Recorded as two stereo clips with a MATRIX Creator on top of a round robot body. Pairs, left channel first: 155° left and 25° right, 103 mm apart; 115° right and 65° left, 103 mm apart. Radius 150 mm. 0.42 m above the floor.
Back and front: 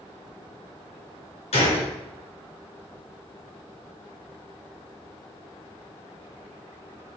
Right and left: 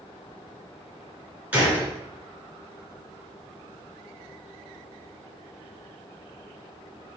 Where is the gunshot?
145° left, 2.5 m.